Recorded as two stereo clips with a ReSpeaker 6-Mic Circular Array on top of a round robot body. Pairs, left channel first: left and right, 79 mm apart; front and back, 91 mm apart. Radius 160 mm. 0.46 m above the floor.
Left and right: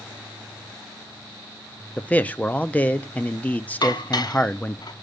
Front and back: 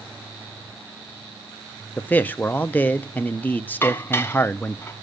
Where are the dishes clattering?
65° left, 1.0 m.